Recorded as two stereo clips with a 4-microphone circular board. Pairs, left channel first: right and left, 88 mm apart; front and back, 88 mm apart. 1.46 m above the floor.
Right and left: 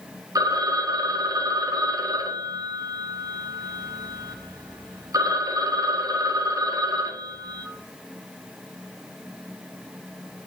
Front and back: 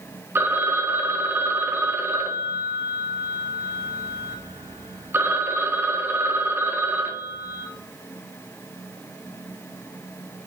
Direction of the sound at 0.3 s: 120° left.